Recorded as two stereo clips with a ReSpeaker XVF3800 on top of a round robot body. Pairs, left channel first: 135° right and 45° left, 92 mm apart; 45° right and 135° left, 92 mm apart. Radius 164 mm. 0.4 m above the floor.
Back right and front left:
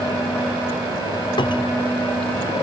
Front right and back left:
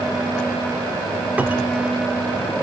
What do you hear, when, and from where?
1.4 s a cupboard door: 155° right, 0.9 m